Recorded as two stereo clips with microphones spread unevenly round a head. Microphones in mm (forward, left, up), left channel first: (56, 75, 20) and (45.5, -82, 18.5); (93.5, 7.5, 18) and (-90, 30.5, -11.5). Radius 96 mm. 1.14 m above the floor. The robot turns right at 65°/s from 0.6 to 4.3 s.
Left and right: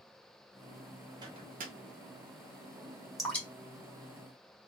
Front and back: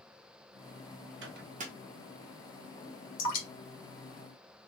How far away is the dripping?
About 1.6 m.